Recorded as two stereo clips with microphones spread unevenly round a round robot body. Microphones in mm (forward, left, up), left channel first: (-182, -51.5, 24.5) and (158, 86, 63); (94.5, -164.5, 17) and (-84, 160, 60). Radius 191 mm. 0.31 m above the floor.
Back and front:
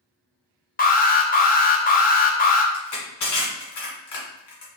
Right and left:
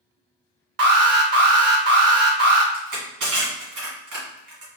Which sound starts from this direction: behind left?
An alarm, at 0.8 s.